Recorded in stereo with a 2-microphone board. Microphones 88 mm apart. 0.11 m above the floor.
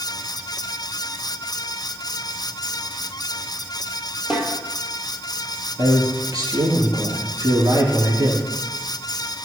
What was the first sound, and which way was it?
A snare drum, 5° right (ahead or behind).